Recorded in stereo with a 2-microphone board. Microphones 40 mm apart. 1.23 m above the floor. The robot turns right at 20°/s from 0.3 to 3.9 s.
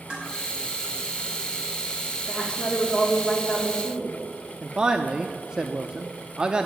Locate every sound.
0.1 s dishes clattering: 25° right (ahead or behind), 5.5 m
2.3 s a woman speaking: 15° left, 4 m; by 4.2 s 50° left, 4 m
4.6 s a man speaking: 20° right (ahead or behind), 0.7 m